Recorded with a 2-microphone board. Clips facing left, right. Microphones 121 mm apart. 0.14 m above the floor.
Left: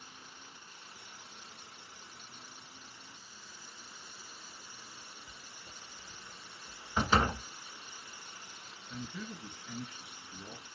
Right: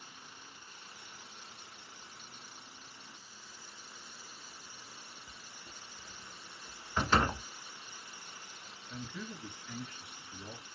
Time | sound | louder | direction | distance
5.3 | writing | even | 25° right (ahead or behind) | 0.8 m
7.0 | a door slam | left 1 dB | 10° left (ahead or behind) | 1.2 m
8.9 | a man speaking | left 1 dB | 5° left (ahead or behind) | 2.5 m